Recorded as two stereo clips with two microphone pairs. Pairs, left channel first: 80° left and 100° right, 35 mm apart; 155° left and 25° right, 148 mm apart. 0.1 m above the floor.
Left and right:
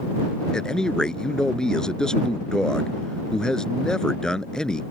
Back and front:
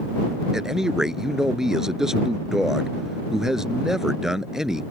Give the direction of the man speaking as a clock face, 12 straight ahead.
10 o'clock.